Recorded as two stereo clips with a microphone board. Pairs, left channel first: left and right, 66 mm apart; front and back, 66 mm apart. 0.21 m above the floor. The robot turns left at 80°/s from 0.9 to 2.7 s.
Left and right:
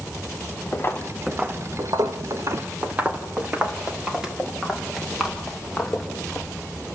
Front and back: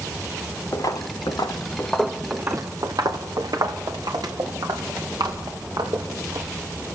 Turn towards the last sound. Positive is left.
turn(degrees=175)